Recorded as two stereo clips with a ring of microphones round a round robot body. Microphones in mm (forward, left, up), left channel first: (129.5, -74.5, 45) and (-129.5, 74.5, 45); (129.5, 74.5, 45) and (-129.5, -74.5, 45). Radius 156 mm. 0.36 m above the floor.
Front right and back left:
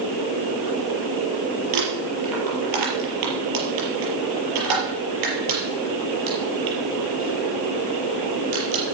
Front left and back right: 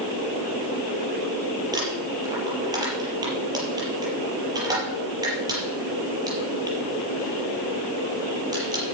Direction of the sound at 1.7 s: 130° left.